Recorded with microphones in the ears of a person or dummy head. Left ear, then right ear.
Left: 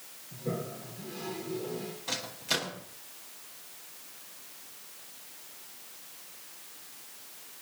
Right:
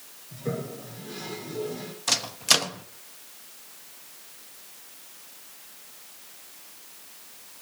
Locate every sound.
0.3 s a toilet flushing: 70° right (ahead or behind), 4 m
2.1 s a microwave: 40° right (ahead or behind), 0.9 m